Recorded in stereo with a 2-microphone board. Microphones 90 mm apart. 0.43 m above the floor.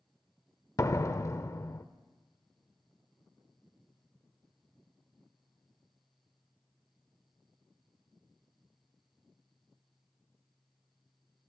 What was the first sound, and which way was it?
A door slam, 35° left (ahead or behind).